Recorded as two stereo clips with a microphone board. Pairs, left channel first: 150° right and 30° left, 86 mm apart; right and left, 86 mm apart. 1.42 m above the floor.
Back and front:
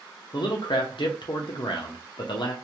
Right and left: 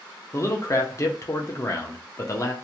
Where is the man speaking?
140° right, 0.5 m.